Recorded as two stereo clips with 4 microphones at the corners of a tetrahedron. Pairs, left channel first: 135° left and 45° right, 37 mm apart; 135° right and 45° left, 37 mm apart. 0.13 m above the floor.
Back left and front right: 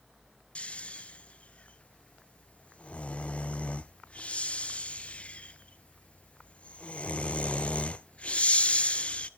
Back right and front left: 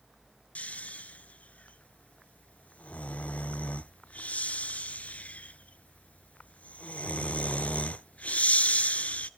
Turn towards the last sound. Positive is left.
turn(degrees=-175)